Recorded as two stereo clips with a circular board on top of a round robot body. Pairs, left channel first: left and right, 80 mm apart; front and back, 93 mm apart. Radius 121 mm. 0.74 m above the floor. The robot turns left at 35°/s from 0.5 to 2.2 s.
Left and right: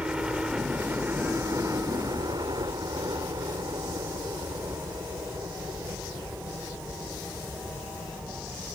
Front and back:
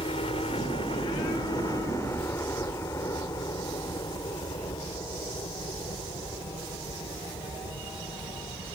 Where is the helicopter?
15° right; by 8.8 s 20° right.